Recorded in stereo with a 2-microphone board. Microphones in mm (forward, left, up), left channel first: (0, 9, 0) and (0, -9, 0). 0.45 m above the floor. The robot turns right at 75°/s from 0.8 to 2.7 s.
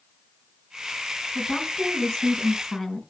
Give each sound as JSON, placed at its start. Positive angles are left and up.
{"t": 1.4, "sound": "a woman speaking", "azimuth_deg": 55, "distance_m": 3.5}